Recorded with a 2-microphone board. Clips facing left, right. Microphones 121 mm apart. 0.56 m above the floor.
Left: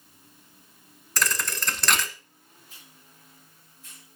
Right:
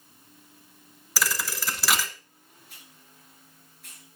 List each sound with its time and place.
1.2 s a thud: 5° right (ahead or behind), 1.2 m
2.7 s a hiss: 65° right (ahead or behind), 7.5 m